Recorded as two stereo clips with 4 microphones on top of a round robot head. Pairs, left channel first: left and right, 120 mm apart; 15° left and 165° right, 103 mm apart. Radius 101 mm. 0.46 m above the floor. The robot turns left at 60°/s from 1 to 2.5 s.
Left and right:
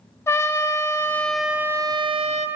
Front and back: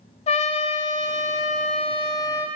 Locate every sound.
0.3 s a trumpet: 25° left, 0.5 m; by 2.5 s 65° right, 0.5 m